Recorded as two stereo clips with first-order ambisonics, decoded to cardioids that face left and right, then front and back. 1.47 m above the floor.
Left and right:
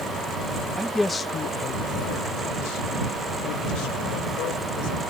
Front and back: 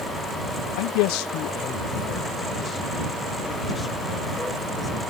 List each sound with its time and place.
0.8 s a man speaking: 5° right; by 5.0 s 75° left